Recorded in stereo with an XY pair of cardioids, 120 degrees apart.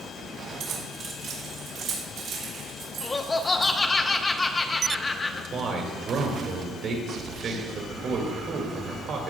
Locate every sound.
0.6 s keys jangling: 65° right, 3 m; by 3.7 s 75° right, 5.5 m
3.0 s laughter: 20° left, 0.8 m
5.5 s a man speaking: 55° right, 2 m